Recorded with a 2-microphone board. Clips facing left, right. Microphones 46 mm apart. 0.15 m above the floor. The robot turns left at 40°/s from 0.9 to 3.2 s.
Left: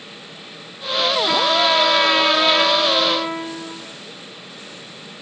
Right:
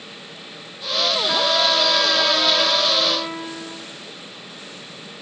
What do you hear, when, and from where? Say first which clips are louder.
1.3 s a trumpet: left 2 dB; 100° left, 4 m; by 3.8 s 25° left, 4 m